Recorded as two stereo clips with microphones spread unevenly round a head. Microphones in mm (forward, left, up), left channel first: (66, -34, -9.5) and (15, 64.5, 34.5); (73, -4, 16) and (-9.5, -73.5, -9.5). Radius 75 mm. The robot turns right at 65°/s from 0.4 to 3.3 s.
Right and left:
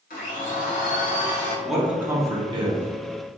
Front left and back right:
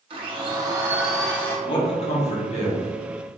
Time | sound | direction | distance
0.1 | a blender | 95° right | 1.0 m
1.6 | a man speaking | 5° left | 1.0 m